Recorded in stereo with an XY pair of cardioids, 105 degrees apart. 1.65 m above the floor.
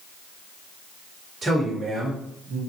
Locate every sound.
1.4 s a man speaking: 30° right, 2 m; by 2.6 s 40° right, 1.5 m